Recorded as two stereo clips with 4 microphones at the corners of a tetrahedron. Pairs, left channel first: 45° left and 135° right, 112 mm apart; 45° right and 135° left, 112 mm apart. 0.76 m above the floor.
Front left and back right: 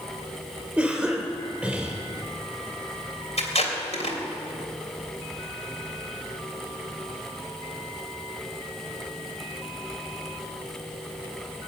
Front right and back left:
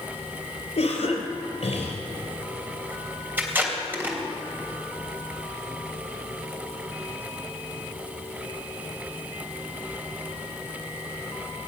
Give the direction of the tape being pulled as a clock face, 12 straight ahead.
10 o'clock.